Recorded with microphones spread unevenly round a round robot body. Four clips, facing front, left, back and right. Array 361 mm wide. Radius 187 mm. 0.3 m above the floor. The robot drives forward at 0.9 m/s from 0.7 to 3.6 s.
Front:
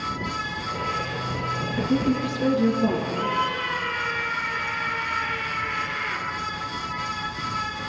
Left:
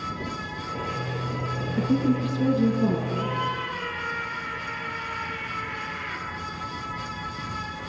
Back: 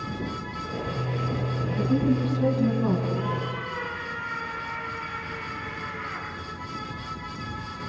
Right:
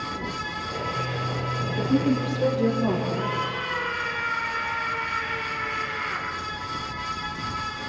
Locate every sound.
1.8 s a woman speaking: 100° left, 5 m; by 3.0 s 110° left, 5.5 m
3.1 s a scream: 105° left, 9.5 m; by 6.3 s 110° left, 9.5 m